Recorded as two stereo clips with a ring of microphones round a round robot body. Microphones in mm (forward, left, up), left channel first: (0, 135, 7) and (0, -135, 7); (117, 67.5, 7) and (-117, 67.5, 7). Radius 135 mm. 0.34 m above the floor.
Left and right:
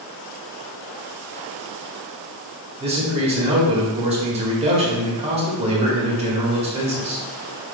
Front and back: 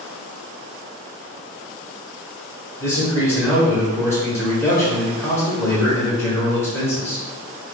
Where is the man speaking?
65° right, 1.3 m.